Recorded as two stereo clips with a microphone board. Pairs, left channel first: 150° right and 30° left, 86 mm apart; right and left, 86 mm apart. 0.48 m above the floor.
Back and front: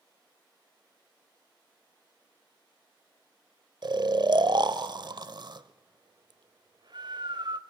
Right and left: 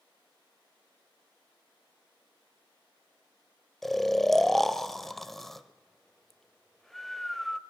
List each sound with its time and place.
3.8 s snoring: straight ahead, 0.6 m